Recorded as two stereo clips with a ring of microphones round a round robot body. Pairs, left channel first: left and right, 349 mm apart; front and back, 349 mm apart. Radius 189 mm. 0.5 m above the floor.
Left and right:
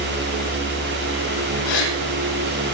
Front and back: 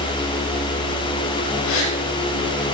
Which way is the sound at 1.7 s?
50° left.